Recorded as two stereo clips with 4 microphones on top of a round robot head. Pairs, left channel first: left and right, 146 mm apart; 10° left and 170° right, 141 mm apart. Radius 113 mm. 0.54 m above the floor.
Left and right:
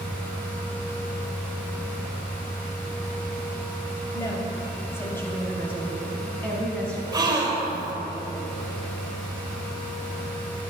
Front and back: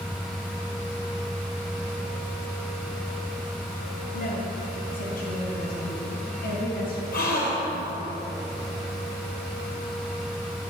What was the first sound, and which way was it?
A woman speaking, 25° left.